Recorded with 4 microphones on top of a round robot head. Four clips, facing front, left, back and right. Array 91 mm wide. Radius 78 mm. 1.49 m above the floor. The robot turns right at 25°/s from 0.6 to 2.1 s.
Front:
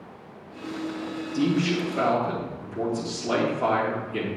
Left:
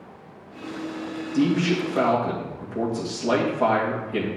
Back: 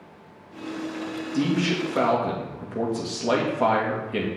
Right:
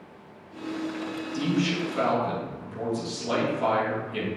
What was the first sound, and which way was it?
A man speaking, 130° left.